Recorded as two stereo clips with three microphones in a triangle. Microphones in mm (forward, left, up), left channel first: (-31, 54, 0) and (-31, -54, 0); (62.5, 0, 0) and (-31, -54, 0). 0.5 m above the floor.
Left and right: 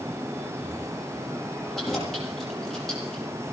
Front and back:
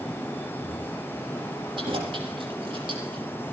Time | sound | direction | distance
1.8 | keys jangling | straight behind | 8.5 m